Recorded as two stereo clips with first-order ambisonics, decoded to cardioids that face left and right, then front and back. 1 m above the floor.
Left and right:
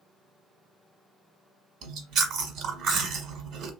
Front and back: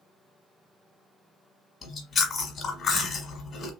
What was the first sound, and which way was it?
Chewing, 70° right.